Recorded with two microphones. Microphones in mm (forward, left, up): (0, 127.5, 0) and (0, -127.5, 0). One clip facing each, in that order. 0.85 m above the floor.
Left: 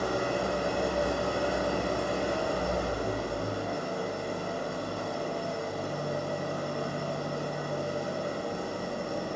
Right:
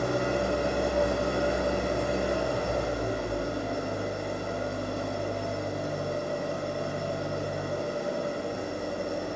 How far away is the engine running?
About 2.5 m.